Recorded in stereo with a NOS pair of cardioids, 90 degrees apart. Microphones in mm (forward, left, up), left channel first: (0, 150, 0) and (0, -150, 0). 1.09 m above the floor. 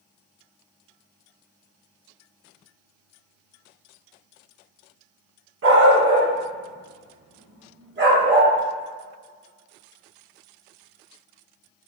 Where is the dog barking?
45° right, 3 m; by 8.5 s 35° right, 5.5 m.